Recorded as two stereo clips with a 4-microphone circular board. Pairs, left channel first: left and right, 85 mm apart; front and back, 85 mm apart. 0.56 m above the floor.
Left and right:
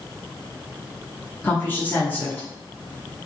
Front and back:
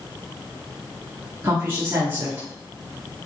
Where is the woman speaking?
140° left, 0.9 m.